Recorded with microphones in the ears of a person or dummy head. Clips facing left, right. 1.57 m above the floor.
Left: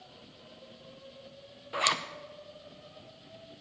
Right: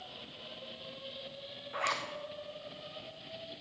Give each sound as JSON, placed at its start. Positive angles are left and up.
{"t": 1.7, "sound": "a zipper", "side_deg": 50, "distance_m": 0.7}